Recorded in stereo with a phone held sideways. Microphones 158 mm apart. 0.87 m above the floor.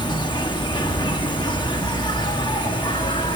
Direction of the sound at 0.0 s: 30° left (ahead or behind).